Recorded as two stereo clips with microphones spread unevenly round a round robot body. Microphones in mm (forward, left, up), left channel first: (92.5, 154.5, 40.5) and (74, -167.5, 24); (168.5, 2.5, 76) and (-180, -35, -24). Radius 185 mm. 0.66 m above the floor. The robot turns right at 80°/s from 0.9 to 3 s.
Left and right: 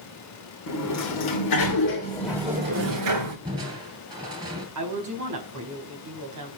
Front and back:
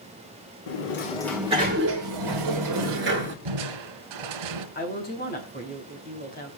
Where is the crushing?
175° right, 2.5 m.